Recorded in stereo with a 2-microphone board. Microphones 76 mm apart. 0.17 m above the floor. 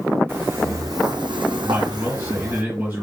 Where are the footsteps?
25° right (ahead or behind), 0.9 m; by 2.6 s 40° right (ahead or behind), 1.1 m.